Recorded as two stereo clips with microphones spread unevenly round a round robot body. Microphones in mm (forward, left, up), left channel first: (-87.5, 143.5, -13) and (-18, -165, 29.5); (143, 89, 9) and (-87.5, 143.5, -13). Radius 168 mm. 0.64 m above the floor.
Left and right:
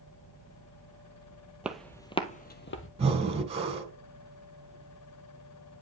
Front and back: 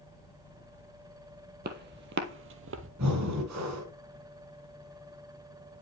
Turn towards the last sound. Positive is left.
turn(degrees=-145)